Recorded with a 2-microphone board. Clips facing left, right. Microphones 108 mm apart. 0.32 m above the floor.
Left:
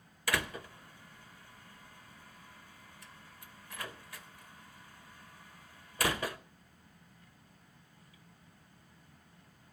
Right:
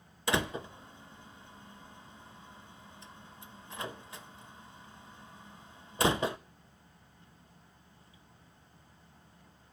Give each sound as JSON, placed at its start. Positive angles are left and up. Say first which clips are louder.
{"t": 0.3, "sound": "a door slam", "louder": "right 4 dB", "side_deg": -25, "distance_m": 0.6}